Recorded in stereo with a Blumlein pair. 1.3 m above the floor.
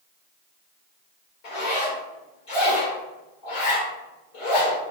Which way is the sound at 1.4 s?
45° left.